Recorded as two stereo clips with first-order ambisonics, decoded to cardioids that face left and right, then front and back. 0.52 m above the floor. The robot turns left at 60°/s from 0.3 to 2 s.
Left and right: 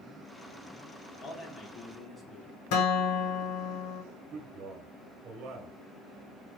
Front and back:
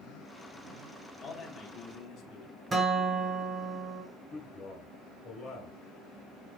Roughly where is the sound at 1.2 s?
Ahead left.